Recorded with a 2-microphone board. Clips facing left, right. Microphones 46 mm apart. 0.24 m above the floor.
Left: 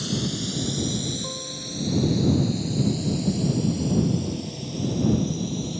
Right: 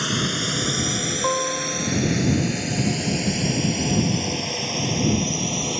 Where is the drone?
60° right (ahead or behind); by 5.8 s 75° right (ahead or behind).